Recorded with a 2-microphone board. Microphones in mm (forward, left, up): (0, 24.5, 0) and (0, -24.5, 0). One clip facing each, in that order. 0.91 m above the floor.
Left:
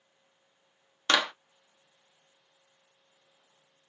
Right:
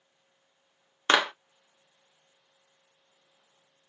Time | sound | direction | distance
1.1 | a clap | 25° right (ahead or behind) | 0.6 m